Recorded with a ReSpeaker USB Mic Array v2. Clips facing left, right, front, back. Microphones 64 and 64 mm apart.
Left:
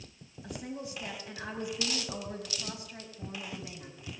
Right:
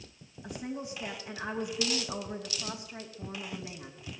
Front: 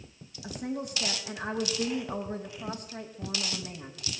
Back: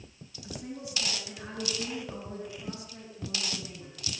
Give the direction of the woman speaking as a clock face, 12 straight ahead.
12 o'clock.